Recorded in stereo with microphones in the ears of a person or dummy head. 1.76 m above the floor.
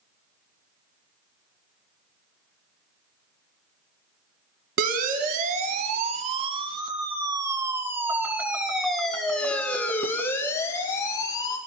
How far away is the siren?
About 2.5 m.